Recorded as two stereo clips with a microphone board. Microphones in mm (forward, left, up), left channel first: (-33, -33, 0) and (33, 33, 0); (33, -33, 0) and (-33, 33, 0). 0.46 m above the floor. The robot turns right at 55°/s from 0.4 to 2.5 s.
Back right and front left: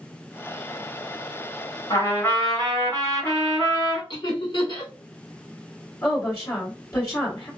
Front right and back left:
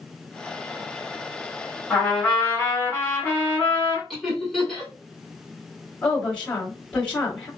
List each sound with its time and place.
1.9 s a trumpet: 130° right, 1.6 m; by 4.0 s 95° right, 1.6 m
4.1 s laughter: 135° right, 2 m
6.0 s a woman speaking: 120° right, 1.6 m